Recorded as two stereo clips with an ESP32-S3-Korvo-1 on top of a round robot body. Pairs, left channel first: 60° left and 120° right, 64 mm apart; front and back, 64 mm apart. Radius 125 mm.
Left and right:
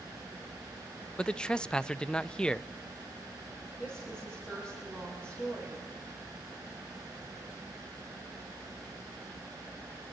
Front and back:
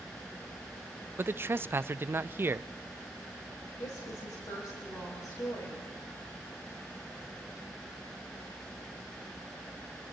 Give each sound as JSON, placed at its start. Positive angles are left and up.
{"t": 1.2, "sound": "a man speaking", "azimuth_deg": 135, "distance_m": 0.6}
{"t": 3.8, "sound": "a woman speaking", "azimuth_deg": -15, "distance_m": 5.5}